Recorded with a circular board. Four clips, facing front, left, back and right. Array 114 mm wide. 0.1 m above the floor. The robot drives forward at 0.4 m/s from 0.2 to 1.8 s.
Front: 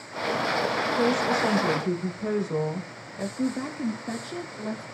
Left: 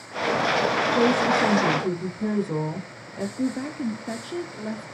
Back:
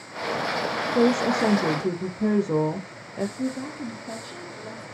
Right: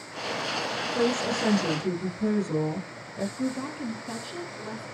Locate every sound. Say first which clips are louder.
0.9 s a woman speaking: left 4 dB, back 5 dB; 170° left, 6 m
3.4 s a woman speaking: left 6 dB, front 1 dB; 65° left, 2.5 m